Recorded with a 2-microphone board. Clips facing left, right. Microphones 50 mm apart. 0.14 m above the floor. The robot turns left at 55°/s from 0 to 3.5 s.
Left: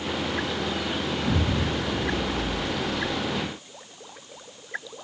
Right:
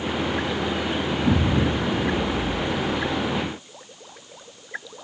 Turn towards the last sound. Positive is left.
turn(degrees=-165)